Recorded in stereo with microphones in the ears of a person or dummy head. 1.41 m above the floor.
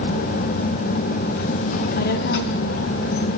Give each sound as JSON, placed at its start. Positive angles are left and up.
{"t": 1.7, "sound": "a child speaking", "side_deg": 40, "distance_m": 0.7}